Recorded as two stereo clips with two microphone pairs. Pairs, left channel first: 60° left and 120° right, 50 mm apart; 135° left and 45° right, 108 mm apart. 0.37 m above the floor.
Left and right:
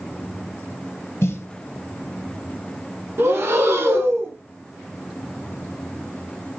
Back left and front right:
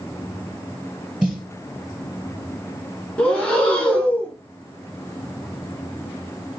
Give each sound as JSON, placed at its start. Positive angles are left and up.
{"t": 1.2, "sound": "a snare drum", "azimuth_deg": 40, "distance_m": 1.2}
{"t": 3.2, "sound": "breathing", "azimuth_deg": -145, "distance_m": 1.4}